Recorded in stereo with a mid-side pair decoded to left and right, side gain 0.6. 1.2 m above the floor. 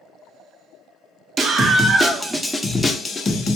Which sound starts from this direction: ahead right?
A scream, at 1.4 s.